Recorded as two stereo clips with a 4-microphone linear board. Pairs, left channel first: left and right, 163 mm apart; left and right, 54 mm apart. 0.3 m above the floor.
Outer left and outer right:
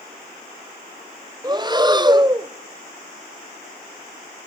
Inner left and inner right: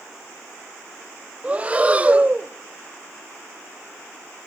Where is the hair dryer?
No hair dryer in this recording.